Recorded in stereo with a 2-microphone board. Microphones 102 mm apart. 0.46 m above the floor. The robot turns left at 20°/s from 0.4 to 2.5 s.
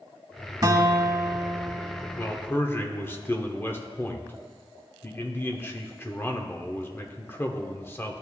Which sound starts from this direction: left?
A man speaking, at 2.2 s.